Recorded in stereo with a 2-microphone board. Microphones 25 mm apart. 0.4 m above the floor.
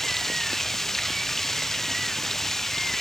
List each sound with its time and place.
0.0 s running water: 10° left (ahead or behind)